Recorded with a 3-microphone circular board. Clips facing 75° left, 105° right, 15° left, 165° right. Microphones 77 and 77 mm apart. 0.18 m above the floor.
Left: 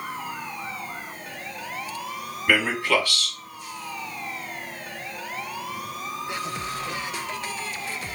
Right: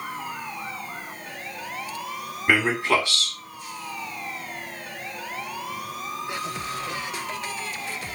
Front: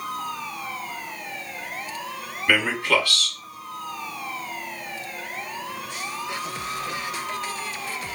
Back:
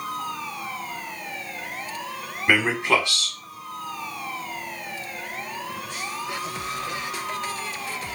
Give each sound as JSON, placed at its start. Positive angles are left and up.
{"t": 2.5, "sound": "a man speaking", "azimuth_deg": -135, "distance_m": 1.1}